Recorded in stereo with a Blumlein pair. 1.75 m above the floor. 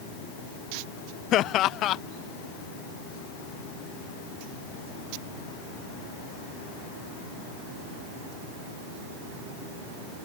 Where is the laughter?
35° left.